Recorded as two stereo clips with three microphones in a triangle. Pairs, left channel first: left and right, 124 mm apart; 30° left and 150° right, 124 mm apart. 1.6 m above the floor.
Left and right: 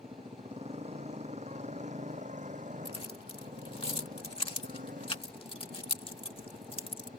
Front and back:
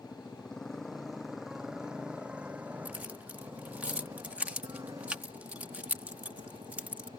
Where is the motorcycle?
55° right; by 7.2 s 100° right.